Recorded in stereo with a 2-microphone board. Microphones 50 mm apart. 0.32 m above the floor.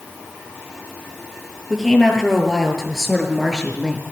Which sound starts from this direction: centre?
A woman speaking, at 1.7 s.